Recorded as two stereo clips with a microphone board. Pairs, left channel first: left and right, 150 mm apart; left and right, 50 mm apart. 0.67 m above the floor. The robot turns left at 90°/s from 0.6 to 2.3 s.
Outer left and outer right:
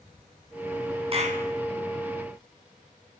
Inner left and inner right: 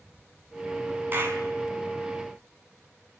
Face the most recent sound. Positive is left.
turn(degrees=-145)